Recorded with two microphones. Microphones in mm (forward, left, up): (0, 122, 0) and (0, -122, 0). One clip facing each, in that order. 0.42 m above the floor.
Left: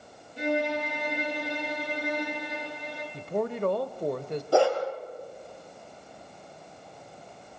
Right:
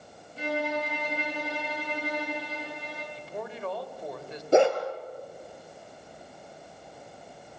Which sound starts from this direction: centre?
A violin, at 0.4 s.